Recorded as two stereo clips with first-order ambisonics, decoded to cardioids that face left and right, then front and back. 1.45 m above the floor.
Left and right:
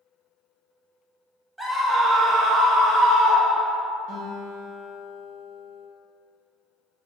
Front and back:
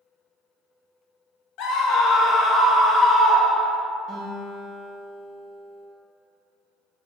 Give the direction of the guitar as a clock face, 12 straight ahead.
3 o'clock.